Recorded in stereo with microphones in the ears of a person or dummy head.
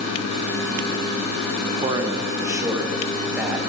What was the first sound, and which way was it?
A man speaking, 30° right (ahead or behind).